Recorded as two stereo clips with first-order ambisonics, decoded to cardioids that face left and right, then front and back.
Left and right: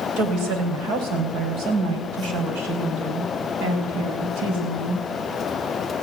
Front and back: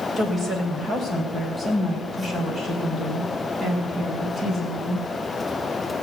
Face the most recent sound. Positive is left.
turn(degrees=-115)